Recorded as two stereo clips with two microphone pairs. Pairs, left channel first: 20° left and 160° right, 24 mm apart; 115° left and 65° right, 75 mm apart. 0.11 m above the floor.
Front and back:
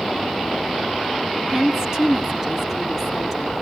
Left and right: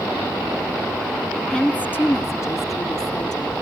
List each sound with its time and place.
1.5 s a woman speaking: 175° right, 1.2 m; by 3.5 s 110° left, 2 m